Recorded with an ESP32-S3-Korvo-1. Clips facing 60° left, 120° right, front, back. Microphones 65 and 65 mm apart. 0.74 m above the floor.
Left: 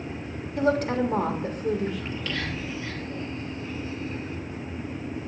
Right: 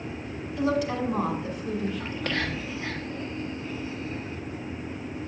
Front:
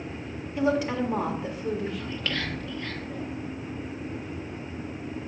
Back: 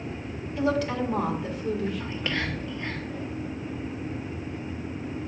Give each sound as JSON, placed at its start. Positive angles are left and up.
{"t": 0.6, "sound": "a woman speaking", "azimuth_deg": 60, "distance_m": 1.6}
{"t": 2.0, "sound": "whispering", "azimuth_deg": -110, "distance_m": 1.0}